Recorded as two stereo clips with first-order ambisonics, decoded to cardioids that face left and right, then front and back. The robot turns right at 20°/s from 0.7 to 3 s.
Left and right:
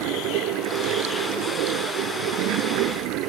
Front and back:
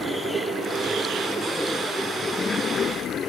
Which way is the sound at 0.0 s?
105° right.